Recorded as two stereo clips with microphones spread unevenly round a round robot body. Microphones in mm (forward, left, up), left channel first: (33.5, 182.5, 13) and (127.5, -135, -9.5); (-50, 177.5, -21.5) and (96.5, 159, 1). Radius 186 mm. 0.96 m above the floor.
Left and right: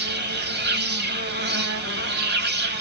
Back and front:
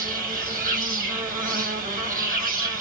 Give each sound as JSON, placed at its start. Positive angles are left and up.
{"t": 0.0, "sound": "an insect", "azimuth_deg": -15, "distance_m": 0.9}